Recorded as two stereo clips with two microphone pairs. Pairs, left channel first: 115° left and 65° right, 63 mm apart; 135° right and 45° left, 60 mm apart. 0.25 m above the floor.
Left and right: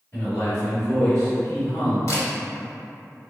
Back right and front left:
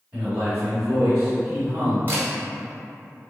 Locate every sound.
0.1 s a man speaking: 65° left, 1.6 m
2.1 s a camera shutter: 100° left, 0.9 m